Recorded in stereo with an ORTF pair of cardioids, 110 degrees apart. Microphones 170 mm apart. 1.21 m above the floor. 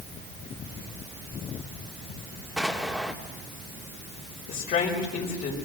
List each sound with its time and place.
2.6 s an explosion: straight ahead, 2.5 m
4.5 s a woman speaking: 55° left, 5.5 m